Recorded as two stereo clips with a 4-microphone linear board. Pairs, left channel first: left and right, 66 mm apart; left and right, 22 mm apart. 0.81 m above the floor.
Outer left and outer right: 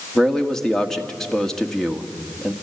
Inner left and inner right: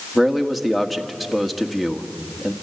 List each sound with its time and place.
0.1 s a man speaking: 5° left (ahead or behind), 1.7 m